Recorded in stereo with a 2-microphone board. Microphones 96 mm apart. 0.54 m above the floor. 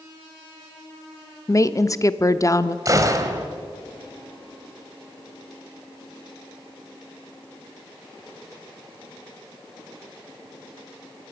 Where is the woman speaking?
35° left (ahead or behind), 0.7 m.